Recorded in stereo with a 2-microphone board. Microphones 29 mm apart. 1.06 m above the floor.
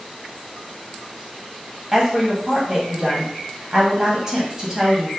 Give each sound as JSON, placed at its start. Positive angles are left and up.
{"t": 1.9, "sound": "a woman speaking", "side_deg": -20, "distance_m": 1.0}